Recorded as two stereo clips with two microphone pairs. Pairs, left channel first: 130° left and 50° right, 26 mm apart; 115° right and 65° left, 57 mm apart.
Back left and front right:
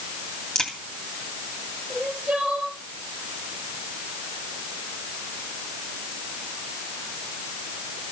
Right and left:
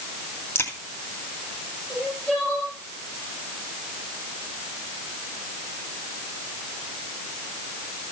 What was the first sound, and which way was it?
A crack, 160° right.